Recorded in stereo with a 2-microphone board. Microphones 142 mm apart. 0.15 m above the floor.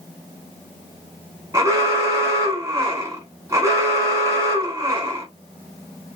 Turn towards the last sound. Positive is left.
turn(degrees=-20)  # may be behind; listen again after turning